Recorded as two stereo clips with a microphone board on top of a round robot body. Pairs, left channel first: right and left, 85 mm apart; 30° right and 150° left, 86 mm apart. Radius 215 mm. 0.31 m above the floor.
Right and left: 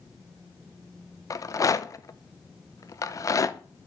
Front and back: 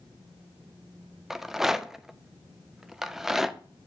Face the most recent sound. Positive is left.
turn(degrees=-125)